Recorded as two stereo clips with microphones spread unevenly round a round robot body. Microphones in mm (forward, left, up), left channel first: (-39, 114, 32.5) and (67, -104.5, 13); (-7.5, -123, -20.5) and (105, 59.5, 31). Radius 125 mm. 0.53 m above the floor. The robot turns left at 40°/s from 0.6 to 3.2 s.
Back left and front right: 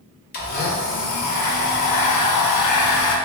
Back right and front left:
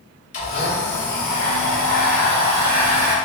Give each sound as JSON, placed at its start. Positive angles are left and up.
{"t": 0.3, "sound": "a blender", "azimuth_deg": 170, "distance_m": 0.5}